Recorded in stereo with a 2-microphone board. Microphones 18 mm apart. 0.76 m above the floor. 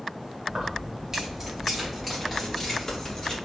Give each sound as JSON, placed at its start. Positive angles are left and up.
{"t": 0.5, "sound": "keys jangling", "side_deg": -30, "distance_m": 1.6}